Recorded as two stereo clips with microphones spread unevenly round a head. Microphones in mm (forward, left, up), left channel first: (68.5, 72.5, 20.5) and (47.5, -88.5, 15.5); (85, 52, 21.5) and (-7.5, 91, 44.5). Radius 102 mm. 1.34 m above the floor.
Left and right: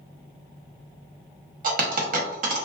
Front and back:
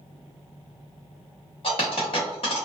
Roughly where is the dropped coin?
Right.